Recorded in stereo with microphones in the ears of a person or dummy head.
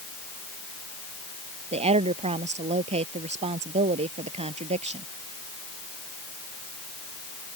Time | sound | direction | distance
1.7 | a woman speaking | 35° right (ahead or behind) | ?